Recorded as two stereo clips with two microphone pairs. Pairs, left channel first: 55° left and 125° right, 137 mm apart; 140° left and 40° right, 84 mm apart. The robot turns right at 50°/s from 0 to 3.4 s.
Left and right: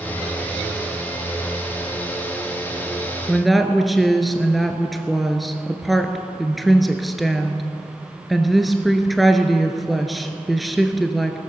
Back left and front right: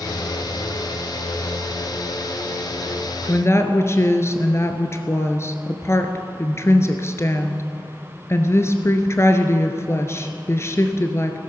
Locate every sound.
3.3 s a woman speaking: 140° left, 1.3 m; by 11.4 s 145° left, 1.3 m